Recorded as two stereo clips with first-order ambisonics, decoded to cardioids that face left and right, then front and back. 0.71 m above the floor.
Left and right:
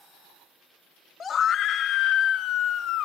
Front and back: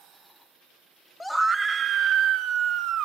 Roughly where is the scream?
Left.